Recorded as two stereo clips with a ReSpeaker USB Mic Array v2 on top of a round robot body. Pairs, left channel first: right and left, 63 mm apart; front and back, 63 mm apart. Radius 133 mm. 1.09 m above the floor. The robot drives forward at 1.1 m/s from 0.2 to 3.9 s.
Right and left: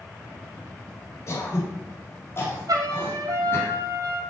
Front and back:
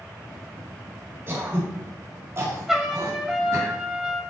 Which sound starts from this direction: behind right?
Throat clearing, at 1.3 s.